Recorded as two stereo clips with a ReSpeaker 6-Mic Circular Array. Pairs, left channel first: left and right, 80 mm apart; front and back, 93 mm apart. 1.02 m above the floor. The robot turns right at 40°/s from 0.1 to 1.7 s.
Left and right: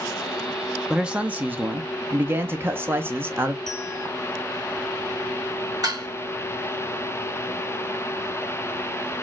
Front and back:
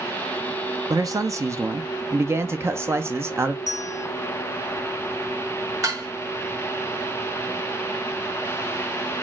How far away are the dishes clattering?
About 1.4 m.